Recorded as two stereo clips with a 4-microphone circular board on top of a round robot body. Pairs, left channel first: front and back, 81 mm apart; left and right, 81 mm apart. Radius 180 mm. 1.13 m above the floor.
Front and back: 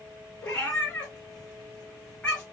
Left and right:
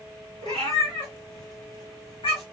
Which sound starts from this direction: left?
A cat meowing, at 0.4 s.